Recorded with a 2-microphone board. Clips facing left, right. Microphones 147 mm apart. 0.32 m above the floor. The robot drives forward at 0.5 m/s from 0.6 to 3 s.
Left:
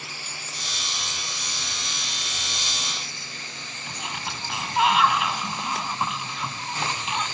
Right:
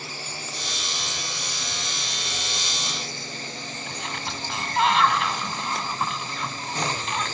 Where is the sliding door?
5° left (ahead or behind).